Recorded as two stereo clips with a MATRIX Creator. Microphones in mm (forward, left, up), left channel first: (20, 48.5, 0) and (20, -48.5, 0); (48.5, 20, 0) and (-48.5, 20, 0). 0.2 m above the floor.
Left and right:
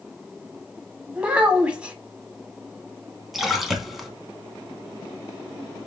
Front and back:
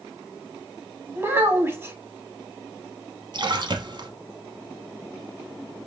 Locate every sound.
1.1 s a child speaking: 150° right, 0.9 m
3.3 s a splash: straight behind, 0.9 m